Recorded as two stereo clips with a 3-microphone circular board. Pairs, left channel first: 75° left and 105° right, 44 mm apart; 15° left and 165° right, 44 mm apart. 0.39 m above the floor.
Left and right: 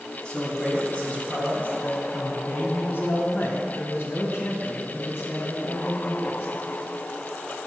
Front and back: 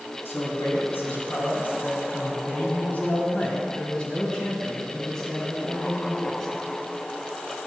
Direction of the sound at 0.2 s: 10° left.